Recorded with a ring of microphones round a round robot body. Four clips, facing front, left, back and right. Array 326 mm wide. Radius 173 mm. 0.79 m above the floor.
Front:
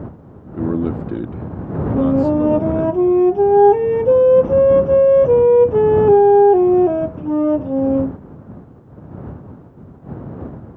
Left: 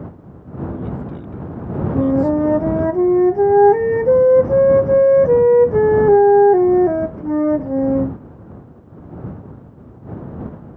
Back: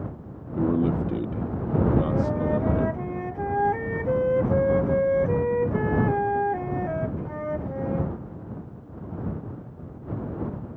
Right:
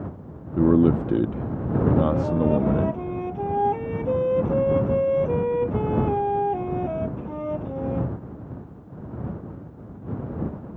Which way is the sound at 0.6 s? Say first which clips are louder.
Right 9 dB, front 3 dB; 70° right.